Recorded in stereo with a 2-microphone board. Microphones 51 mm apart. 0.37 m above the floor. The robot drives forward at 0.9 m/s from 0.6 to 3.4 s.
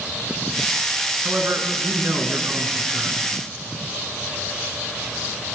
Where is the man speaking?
40° right (ahead or behind), 5.5 m; by 3.2 s 55° right (ahead or behind), 4.5 m.